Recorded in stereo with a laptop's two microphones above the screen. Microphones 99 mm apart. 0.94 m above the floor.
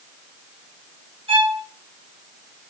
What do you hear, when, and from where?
1.3 s a violin: 70° right (ahead or behind), 1.4 m